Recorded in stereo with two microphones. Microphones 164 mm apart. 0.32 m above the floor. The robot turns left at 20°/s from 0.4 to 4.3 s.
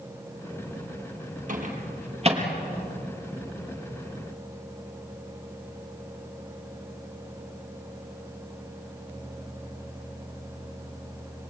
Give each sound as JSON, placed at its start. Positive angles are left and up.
{"t": 1.5, "sound": "a microwave", "side_deg": -55, "distance_m": 5.0}